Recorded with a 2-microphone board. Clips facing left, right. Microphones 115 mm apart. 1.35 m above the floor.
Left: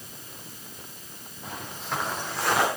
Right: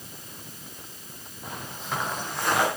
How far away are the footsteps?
About 6.5 m.